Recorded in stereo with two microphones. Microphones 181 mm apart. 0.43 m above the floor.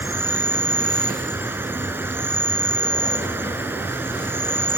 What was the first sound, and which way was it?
An insect, 10° right (ahead or behind).